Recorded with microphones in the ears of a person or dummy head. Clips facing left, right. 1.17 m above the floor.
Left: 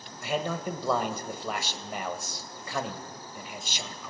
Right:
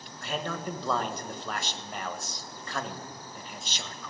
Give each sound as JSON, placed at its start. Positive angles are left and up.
{"t": 0.2, "sound": "a man speaking", "side_deg": 10, "distance_m": 1.0}